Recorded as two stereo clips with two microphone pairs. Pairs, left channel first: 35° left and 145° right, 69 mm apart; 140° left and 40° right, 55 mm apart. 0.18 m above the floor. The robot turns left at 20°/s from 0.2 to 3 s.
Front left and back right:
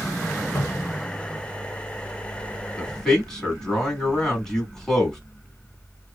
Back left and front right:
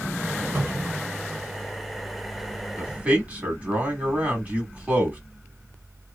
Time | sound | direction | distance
0.6 | a cupboard door | straight ahead | 1.4 m
2.8 | a man speaking | 35° right | 1.6 m